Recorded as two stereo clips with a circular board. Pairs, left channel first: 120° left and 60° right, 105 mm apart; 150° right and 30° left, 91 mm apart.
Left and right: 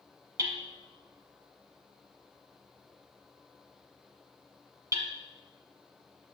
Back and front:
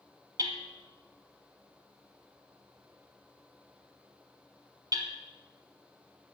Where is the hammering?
10° right, 0.8 m.